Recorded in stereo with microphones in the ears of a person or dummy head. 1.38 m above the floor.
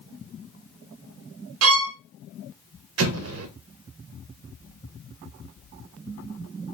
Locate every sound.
1.6 s a violin: 70° right (ahead or behind), 0.6 m
3.0 s an explosion: 70° right (ahead or behind), 0.6 m